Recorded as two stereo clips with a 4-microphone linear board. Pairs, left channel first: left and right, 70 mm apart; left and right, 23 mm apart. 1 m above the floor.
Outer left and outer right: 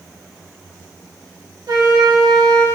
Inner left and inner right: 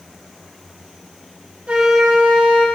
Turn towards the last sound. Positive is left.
turn(degrees=-70)  # may be behind; listen again after turning